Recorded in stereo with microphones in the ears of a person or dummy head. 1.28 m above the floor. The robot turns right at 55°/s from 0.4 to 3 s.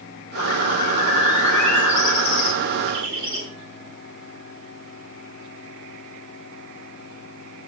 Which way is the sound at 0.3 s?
110° left.